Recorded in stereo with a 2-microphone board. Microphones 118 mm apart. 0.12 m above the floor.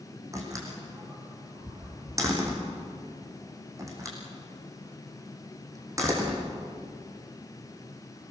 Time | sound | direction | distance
0.3 | a door slam | 30° right (ahead or behind) | 4.5 m